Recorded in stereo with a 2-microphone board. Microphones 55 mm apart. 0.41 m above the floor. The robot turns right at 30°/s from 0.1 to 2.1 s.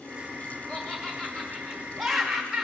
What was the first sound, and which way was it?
Laughter, 15° left (ahead or behind).